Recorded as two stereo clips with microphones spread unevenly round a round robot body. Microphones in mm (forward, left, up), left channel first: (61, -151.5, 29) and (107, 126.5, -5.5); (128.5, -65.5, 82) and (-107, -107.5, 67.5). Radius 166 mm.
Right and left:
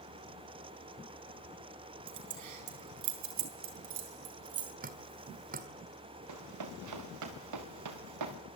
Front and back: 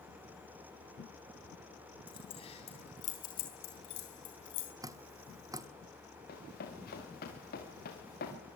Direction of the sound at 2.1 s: 85° left.